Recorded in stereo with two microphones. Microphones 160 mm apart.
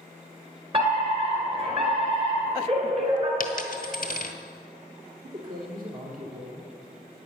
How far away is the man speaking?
About 3 m.